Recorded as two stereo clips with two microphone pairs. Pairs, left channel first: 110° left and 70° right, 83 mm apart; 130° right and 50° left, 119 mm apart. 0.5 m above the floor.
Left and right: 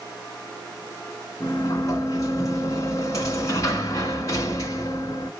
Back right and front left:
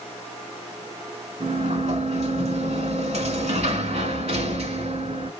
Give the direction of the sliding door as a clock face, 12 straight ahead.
10 o'clock.